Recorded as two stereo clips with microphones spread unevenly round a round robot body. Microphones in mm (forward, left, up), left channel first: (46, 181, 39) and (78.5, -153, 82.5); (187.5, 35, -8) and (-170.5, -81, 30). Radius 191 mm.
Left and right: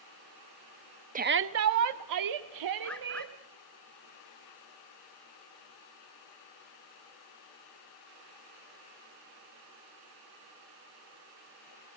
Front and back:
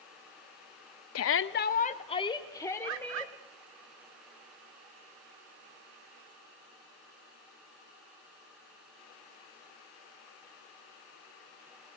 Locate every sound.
1.1 s a shout: 15° right, 0.9 m; by 3.3 s 70° right, 2.5 m
2.8 s a bird: straight behind, 1.4 m